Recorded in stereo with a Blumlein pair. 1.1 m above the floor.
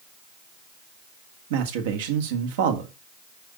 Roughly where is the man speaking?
Ahead right.